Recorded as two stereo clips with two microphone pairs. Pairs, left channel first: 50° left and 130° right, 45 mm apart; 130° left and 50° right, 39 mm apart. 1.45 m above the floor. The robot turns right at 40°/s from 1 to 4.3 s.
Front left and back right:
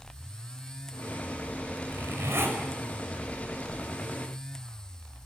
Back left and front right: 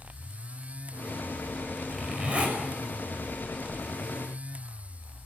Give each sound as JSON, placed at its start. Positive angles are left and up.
{"t": 1.9, "sound": "a zipper", "azimuth_deg": -125, "distance_m": 6.0}